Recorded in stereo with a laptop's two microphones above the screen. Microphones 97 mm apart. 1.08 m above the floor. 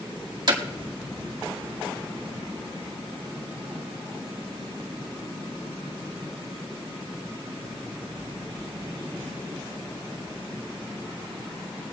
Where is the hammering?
45° right (ahead or behind), 2 m.